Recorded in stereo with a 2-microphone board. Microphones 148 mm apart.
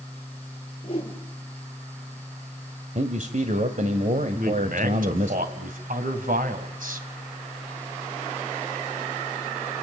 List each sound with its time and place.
0.8 s a whoosh: 40° left (ahead or behind), 5 m
3.0 s a man speaking: 60° right (ahead or behind), 1.6 m
4.3 s a man speaking: 70° right (ahead or behind), 3 m